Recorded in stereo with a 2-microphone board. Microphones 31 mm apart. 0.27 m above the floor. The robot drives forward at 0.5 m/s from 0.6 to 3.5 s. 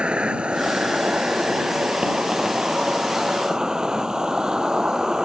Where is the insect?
35° right (ahead or behind); by 5.2 s 20° right (ahead or behind).